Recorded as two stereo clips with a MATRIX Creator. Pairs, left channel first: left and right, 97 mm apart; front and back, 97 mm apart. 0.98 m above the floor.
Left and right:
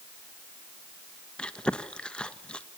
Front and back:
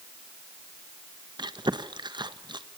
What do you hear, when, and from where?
1.4 s chewing: 165° left, 1.2 m